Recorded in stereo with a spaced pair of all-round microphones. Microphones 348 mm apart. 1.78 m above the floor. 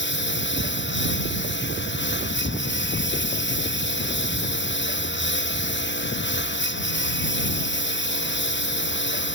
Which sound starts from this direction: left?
A lawn mower, at 0.0 s.